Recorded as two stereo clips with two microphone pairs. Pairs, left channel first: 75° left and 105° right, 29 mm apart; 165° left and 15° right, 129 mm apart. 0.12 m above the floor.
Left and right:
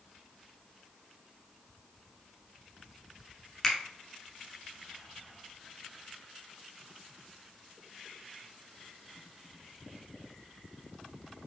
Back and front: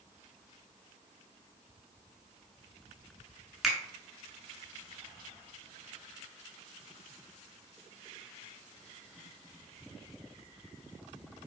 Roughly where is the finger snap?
Left.